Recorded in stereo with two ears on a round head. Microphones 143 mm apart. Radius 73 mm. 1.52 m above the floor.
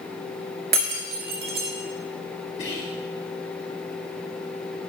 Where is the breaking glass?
65° right (ahead or behind), 1.8 m.